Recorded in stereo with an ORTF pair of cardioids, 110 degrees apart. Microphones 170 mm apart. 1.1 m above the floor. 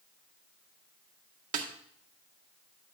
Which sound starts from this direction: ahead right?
A snare drum, at 1.5 s.